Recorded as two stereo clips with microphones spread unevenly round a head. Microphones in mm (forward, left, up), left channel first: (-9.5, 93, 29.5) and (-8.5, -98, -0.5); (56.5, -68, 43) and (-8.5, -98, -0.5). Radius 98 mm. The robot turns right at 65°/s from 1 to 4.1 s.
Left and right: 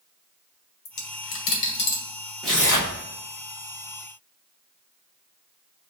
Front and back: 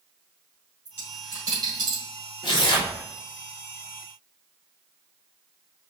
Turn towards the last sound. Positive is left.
turn(degrees=105)